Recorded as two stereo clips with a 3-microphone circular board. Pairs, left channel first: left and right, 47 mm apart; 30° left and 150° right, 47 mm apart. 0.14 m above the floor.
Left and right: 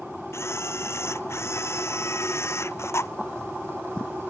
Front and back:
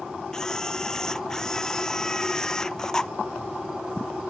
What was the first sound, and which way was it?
A camera shutter, 110° left.